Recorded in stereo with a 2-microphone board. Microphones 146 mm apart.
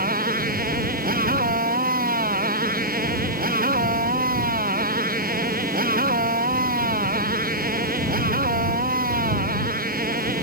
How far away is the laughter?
I don't hear laughter.